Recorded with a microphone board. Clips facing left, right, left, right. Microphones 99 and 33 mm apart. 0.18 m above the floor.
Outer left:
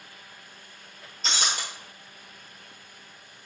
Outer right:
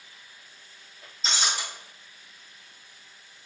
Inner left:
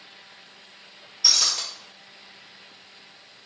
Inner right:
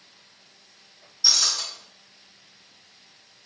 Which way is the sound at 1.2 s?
60° left (ahead or behind).